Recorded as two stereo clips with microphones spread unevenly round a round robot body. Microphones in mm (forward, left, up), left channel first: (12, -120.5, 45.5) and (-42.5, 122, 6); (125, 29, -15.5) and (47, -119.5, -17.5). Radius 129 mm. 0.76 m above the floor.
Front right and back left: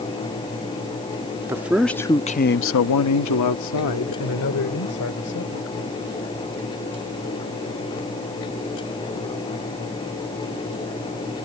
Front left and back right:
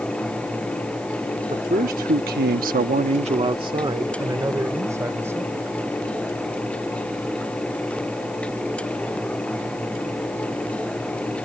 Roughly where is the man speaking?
Behind.